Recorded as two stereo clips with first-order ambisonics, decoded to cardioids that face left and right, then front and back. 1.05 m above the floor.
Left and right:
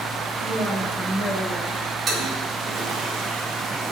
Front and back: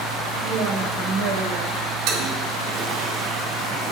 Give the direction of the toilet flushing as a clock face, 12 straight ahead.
5 o'clock.